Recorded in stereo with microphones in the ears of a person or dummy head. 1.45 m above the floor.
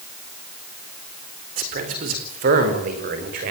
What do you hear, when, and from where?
1.6 s a man speaking: 50° right (ahead or behind), 4 m; by 3.5 s 55° right (ahead or behind), 5.5 m